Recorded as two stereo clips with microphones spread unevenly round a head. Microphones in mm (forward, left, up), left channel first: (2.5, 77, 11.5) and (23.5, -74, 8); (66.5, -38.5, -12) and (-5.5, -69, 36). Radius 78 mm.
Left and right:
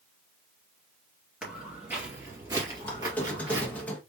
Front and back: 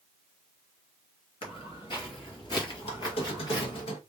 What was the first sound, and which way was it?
Footsteps, straight ahead.